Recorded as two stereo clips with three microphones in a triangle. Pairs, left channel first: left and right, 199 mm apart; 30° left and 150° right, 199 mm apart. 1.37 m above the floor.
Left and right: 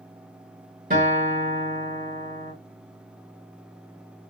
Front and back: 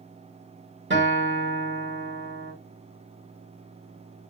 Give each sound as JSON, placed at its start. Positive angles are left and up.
{"t": 0.9, "sound": "a guitar", "azimuth_deg": -130, "distance_m": 2.0}